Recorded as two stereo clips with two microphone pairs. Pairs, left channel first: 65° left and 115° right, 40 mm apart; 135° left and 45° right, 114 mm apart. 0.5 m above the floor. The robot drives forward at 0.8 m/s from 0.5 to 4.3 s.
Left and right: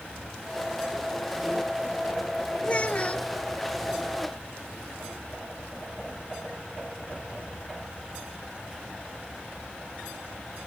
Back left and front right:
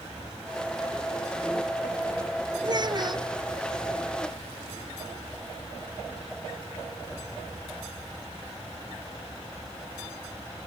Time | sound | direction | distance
2.6 | a child speaking | 5° left | ?